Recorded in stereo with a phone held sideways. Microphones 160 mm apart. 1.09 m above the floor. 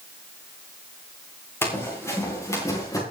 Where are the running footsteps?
15° left (ahead or behind), 7.5 m; by 3.0 s 20° left (ahead or behind), 8 m.